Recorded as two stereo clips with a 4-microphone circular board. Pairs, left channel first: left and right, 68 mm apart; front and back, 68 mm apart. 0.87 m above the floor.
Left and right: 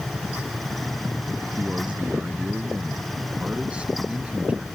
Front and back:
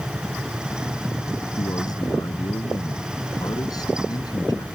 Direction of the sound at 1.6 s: 15° right.